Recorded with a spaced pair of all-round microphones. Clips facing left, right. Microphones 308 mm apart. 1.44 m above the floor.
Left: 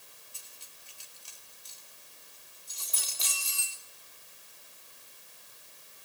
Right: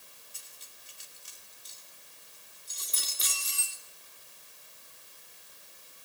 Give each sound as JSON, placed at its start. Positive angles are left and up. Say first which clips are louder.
{"t": 0.3, "sound": "cutlery clinking", "louder": "even", "side_deg": -25, "distance_m": 2.5}